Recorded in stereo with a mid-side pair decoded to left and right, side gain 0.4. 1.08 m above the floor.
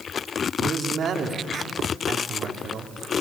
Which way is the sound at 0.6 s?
60° right.